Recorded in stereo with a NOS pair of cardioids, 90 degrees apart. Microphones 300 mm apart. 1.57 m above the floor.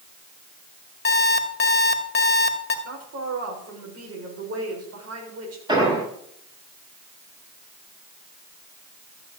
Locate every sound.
1.1 s an alarm clock: 35° left, 2.5 m
2.9 s a woman speaking: 55° right, 7.5 m
5.7 s an explosion: 15° right, 9.5 m